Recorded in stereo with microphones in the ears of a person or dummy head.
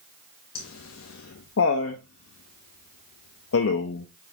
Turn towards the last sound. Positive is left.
turn(degrees=70)  # may be behind; listen again after turning